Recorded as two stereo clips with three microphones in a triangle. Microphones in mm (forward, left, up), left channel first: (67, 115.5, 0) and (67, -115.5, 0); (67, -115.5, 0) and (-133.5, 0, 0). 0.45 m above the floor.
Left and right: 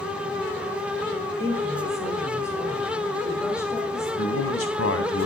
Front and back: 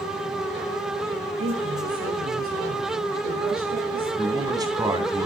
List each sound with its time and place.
1.4 s a woman speaking: 170° left, 5 m
4.2 s a man speaking: 75° left, 3 m